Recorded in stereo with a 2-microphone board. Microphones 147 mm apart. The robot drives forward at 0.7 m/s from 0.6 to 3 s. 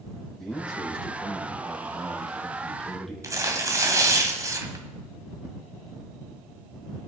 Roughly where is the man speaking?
Centre.